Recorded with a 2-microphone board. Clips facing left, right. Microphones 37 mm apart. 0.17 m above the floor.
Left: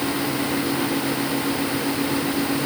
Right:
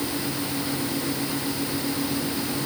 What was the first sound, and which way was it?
Only background noise.